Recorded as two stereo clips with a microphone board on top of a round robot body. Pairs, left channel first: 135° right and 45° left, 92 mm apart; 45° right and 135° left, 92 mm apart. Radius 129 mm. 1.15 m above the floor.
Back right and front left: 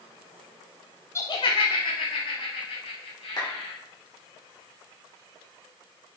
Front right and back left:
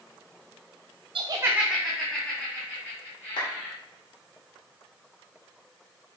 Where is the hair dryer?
No hair dryer in this recording.